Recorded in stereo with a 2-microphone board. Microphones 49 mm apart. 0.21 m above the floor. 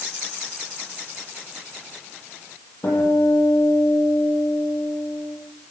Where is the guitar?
80° left, 9 m.